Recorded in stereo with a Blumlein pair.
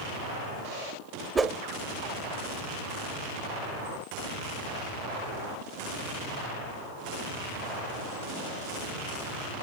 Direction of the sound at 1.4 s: 15° right.